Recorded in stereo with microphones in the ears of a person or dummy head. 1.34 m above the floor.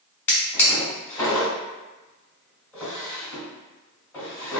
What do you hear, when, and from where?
0.3 s a drawer: 15° left (ahead or behind), 1.6 m